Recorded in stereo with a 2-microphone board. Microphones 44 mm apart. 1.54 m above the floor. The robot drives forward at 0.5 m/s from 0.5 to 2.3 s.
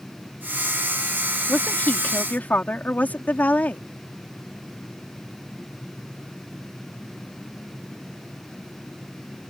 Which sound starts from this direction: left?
A woman speaking, at 1.5 s.